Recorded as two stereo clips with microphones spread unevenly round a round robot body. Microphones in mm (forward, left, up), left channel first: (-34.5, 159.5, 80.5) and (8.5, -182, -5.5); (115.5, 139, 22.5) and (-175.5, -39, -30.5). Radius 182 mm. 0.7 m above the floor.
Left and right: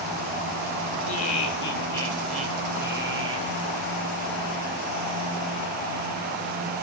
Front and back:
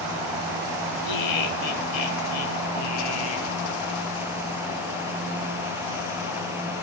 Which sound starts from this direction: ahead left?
Laughter, at 1.1 s.